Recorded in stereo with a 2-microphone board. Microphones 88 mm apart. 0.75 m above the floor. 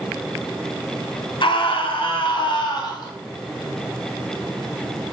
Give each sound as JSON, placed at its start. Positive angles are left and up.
{"t": 1.4, "sound": "a scream", "side_deg": 65, "distance_m": 1.3}